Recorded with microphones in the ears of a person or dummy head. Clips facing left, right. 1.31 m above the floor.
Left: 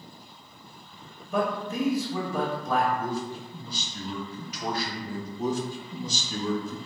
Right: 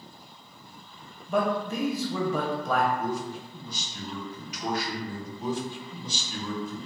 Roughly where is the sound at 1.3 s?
Right.